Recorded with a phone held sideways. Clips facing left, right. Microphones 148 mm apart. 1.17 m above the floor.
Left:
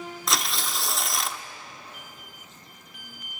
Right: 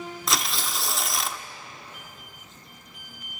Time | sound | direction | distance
0.3 | tearing paper | centre (ahead or behind) | 0.8 m